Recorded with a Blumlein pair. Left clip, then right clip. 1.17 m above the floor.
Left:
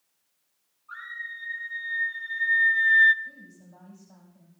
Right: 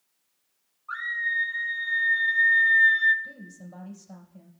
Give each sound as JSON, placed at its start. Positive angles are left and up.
{"t": 0.9, "sound": "a scream", "azimuth_deg": -60, "distance_m": 1.8}
{"t": 3.2, "sound": "a woman speaking", "azimuth_deg": -60, "distance_m": 4.0}